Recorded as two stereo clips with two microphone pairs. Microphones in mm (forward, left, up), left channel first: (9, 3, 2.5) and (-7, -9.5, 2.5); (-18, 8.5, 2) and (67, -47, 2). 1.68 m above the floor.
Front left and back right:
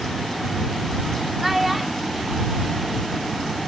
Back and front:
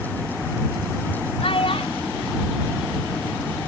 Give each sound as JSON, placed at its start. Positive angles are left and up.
{"t": 1.4, "sound": "a child speaking", "azimuth_deg": 135}